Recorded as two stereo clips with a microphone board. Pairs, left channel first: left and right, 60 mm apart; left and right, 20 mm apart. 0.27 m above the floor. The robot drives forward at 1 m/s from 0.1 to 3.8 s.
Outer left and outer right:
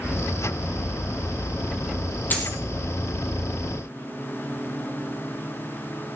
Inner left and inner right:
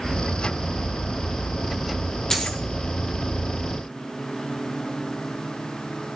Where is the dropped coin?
30° left (ahead or behind), 2.5 m.